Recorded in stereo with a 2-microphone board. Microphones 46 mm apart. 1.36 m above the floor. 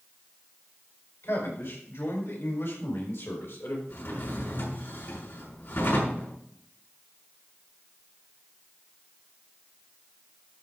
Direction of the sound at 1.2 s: 80° left.